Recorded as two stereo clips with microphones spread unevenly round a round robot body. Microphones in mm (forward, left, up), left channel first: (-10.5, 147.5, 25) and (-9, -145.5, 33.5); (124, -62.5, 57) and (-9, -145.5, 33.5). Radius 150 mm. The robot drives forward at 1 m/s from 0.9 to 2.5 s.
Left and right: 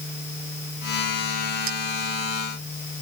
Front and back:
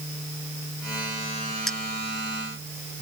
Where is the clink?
55° right.